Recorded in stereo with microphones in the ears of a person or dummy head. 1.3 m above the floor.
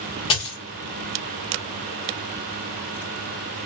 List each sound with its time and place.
0.3 s a dropped coin: 25° left (ahead or behind), 1.4 m